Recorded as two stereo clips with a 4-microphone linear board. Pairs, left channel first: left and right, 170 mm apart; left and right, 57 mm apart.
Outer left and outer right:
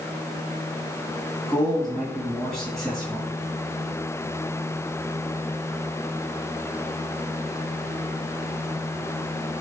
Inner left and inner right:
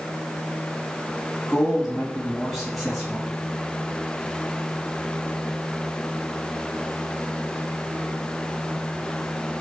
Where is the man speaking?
Centre (ahead or behind), 3.5 m.